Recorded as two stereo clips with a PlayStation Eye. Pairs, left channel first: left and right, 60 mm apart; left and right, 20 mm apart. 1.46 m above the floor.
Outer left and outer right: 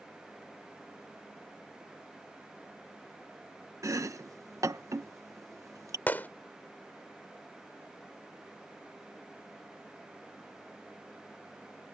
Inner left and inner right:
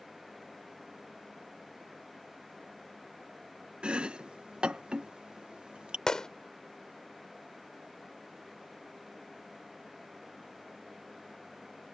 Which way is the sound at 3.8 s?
60° right (ahead or behind).